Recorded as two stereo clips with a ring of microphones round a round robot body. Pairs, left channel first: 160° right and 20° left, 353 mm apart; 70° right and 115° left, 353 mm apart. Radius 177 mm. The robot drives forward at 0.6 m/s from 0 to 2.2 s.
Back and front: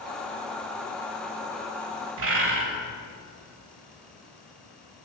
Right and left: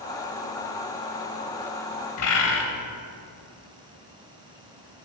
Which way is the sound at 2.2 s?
30° right.